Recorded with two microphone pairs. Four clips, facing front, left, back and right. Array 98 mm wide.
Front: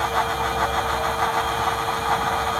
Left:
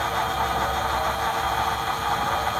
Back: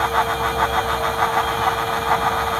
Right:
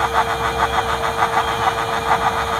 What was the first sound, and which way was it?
Only background noise.